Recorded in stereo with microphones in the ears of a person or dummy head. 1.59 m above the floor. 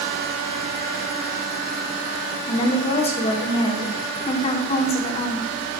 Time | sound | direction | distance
2.5 | a woman speaking | 40° left (ahead or behind) | 0.9 m